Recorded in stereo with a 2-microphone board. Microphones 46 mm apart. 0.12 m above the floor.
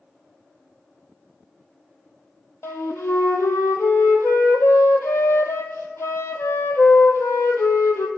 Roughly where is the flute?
Left.